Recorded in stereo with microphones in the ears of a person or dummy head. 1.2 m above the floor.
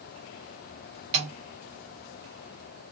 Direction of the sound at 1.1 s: 20° right (ahead or behind).